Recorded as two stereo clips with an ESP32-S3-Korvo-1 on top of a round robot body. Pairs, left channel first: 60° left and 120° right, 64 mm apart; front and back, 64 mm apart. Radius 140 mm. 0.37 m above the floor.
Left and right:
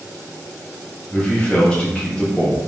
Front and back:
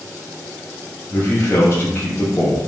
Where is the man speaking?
5° right, 0.9 m.